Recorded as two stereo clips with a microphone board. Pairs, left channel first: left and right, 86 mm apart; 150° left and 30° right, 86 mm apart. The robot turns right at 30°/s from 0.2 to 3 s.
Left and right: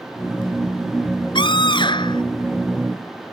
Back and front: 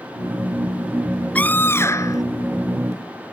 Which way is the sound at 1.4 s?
80° left.